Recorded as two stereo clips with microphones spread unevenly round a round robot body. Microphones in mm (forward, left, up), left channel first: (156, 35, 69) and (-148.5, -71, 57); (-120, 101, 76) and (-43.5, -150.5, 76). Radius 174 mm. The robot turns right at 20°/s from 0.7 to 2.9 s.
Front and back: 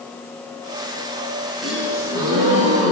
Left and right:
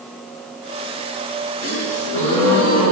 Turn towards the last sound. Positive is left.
turn(degrees=135)